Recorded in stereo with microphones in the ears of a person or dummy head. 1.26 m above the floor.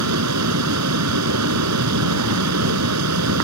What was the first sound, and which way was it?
A fan, 90° right.